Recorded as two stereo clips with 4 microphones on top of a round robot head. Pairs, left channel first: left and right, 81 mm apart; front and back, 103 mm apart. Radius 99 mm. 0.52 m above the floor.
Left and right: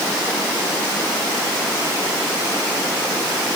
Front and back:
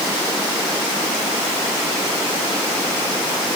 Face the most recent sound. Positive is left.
No sound to turn to.